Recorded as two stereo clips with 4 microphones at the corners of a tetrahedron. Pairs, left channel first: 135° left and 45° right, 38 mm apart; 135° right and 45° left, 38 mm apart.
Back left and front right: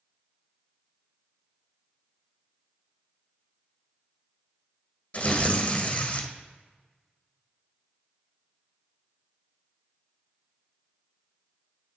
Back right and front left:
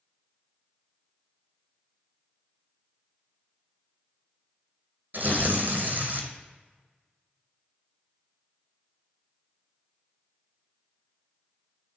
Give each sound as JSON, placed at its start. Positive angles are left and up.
{"t": 5.1, "sound": "tearing paper", "azimuth_deg": 80, "distance_m": 1.7}